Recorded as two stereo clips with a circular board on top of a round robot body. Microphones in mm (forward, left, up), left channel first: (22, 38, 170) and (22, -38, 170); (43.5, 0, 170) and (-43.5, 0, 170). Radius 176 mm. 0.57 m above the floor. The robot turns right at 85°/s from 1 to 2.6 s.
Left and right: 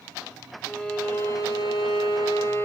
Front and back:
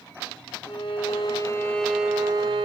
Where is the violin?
15° left, 2.5 m; by 2.6 s 150° left, 2.5 m.